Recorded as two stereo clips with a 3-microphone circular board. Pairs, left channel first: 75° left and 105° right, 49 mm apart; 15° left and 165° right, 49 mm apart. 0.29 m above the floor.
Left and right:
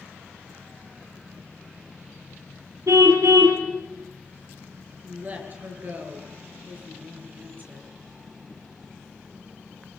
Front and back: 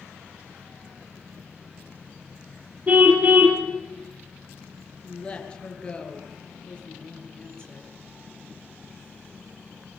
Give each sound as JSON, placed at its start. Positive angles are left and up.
{"t": 2.9, "sound": "a car horn", "azimuth_deg": -110, "distance_m": 3.5}
{"t": 5.0, "sound": "a woman speaking", "azimuth_deg": -50, "distance_m": 6.0}